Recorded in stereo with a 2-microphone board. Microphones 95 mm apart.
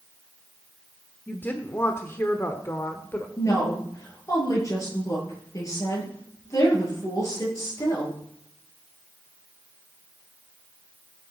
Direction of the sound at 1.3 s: 20° left (ahead or behind).